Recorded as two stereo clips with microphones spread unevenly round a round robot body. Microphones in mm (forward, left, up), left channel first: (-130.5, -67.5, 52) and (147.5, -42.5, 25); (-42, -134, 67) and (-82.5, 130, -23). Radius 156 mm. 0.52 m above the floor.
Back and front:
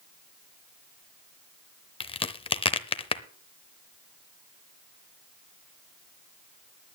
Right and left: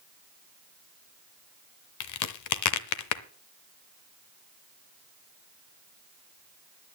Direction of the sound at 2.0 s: 105° right.